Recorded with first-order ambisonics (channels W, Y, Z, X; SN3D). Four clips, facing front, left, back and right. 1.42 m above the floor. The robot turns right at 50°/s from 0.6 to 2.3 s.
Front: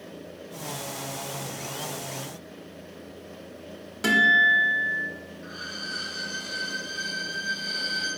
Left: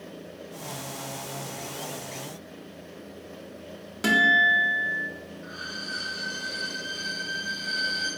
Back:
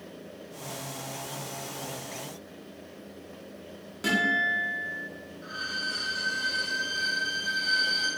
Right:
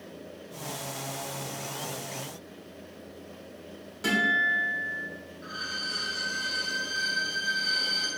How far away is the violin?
About 1.5 m.